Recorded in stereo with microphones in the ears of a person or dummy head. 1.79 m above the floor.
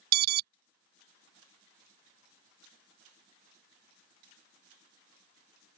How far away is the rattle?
I don't hear a rattle.